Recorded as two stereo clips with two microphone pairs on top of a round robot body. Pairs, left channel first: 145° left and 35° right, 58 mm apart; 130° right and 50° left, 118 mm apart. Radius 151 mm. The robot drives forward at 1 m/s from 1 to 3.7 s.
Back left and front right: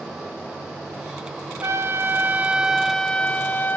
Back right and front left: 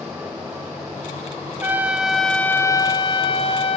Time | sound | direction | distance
1.6 | a trumpet | 10° right | 1.4 m